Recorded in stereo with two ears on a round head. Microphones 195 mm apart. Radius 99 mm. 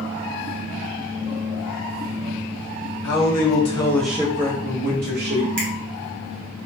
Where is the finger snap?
55° right (ahead or behind), 1.0 m.